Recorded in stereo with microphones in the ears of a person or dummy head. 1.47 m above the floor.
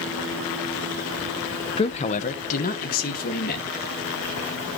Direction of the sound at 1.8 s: 30° left (ahead or behind).